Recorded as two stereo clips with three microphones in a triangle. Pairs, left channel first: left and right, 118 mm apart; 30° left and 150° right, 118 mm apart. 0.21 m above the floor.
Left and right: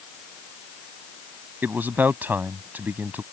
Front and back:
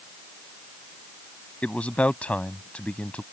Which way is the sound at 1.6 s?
35° right.